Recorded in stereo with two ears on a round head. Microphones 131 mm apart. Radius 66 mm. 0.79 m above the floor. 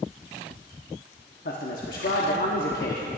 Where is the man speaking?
70° left (ahead or behind), 1.3 m.